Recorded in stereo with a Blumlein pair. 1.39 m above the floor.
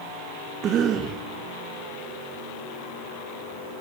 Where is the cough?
30° right, 0.7 m.